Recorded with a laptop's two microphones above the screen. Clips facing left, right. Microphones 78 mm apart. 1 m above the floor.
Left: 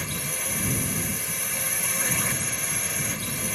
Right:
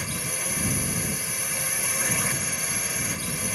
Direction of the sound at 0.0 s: Centre (ahead or behind).